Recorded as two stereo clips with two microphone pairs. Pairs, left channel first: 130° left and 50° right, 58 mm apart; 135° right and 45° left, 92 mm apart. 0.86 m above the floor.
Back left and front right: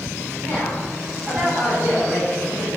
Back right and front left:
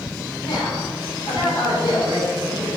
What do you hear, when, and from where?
0.4 s a woman speaking: 170° right, 3.5 m; by 2.7 s 125° right, 4.5 m